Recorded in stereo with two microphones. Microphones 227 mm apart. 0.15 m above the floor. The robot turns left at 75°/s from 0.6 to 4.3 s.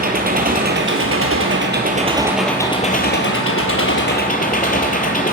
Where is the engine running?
45° right, 1.0 m; by 5.3 s 40° left, 1.0 m.